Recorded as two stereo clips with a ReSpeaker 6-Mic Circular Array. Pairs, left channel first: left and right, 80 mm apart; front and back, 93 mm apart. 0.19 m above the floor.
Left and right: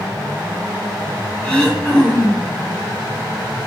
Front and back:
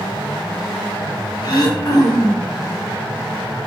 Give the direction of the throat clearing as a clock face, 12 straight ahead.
12 o'clock.